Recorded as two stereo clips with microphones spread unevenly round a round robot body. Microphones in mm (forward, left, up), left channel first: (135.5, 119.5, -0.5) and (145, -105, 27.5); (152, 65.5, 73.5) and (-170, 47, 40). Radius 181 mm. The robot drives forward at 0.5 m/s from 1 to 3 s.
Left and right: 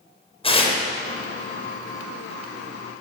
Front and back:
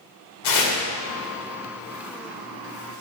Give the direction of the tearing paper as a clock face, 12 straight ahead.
11 o'clock.